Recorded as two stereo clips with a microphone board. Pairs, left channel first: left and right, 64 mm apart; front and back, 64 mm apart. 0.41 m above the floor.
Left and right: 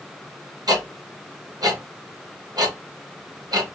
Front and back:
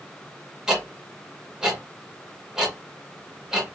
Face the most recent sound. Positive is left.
turn(degrees=-100)